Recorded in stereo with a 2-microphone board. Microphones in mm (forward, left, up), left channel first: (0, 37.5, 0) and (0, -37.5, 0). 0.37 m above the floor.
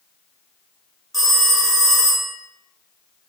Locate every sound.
1.1 s a phone ringing: centre (ahead or behind), 0.9 m